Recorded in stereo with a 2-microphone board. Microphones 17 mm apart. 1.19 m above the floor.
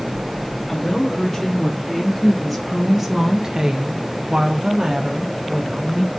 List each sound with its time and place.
0.7 s a woman speaking: 5° left (ahead or behind), 2.5 m; by 6.1 s 35° right (ahead or behind), 2.0 m